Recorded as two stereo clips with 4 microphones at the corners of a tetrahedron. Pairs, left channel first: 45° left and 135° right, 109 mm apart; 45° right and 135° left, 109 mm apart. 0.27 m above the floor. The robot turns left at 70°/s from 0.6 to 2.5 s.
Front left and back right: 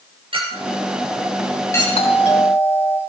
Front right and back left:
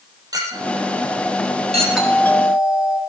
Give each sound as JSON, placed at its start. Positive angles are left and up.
{"t": 0.3, "sound": "a clink", "azimuth_deg": -170, "distance_m": 4.5}
{"t": 1.9, "sound": "a doorbell", "azimuth_deg": 50, "distance_m": 4.5}